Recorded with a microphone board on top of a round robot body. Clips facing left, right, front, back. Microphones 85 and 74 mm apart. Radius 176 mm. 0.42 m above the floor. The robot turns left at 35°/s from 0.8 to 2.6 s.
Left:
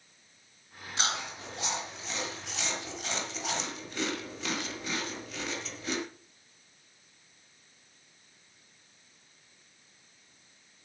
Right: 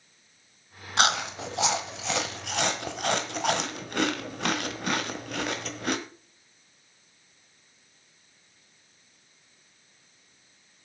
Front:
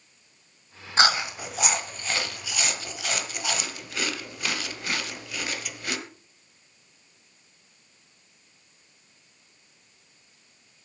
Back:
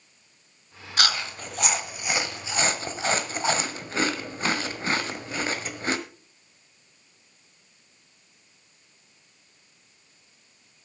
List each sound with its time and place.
1.0 s chewing: 65° right, 1.3 m; by 6.0 s 120° right, 1.3 m